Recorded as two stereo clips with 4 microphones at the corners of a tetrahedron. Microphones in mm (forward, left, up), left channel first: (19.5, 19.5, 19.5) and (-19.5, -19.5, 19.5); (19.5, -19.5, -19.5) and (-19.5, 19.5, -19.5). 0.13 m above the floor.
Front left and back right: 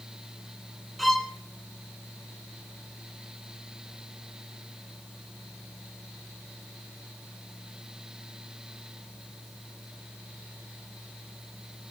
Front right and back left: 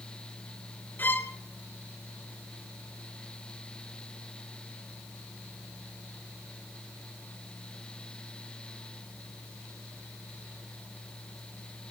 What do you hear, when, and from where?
1.0 s a violin: 45° right, 0.9 m